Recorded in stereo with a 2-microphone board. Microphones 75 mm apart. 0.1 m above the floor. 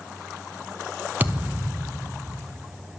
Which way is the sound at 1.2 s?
25° right (ahead or behind).